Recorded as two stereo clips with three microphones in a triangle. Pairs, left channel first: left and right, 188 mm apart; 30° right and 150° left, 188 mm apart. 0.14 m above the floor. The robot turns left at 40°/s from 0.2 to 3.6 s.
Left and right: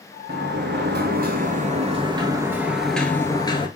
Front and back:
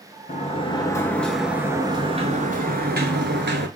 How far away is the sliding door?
About 0.8 m.